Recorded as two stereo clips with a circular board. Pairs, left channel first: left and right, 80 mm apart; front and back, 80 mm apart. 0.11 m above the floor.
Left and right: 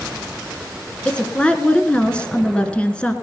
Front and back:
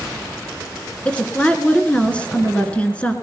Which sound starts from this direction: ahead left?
A woman speaking, at 1.1 s.